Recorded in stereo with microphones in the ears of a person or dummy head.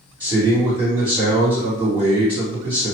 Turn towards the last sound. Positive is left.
turn(degrees=-20)  # may be behind; listen again after turning